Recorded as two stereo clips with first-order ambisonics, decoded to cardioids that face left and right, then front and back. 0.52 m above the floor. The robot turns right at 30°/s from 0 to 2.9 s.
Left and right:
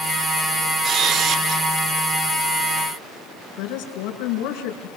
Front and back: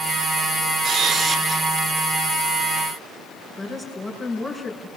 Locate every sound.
0.8 s a camera shutter: 140° right, 1.4 m; by 1.6 s 115° right, 1.4 m
3.6 s a woman speaking: 90° left, 5.5 m